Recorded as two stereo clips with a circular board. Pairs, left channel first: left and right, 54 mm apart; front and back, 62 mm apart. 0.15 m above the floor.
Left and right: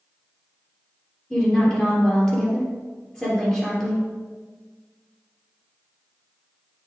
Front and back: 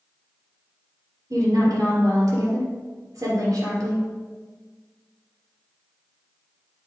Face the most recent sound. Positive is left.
turn(degrees=165)